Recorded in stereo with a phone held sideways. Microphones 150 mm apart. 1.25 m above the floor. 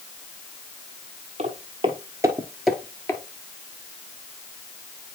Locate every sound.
1.4 s footsteps: 45° right (ahead or behind), 1.7 m; by 3.2 s 20° left (ahead or behind), 1.3 m